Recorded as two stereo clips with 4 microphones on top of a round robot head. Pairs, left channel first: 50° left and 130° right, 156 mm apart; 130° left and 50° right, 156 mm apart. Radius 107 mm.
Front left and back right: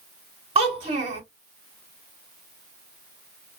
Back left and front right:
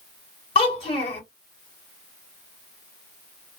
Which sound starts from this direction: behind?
A child speaking, at 0.6 s.